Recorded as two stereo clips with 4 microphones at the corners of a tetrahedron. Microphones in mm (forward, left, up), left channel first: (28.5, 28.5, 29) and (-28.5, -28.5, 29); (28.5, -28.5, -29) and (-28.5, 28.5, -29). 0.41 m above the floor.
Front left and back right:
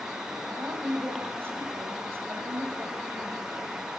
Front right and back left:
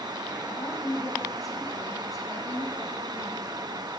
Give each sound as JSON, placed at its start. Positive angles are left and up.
{"t": 0.5, "sound": "a woman speaking", "azimuth_deg": -80, "distance_m": 2.0}